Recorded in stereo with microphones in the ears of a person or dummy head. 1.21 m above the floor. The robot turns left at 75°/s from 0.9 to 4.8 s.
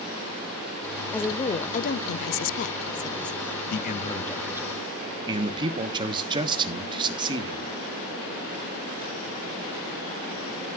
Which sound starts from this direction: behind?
A woman speaking, at 1.1 s.